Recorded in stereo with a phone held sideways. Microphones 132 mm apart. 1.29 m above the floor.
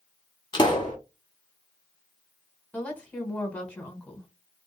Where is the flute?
No flute in this recording.